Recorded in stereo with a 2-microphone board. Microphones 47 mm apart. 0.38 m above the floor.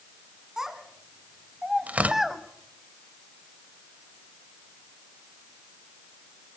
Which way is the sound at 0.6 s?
10° right (ahead or behind).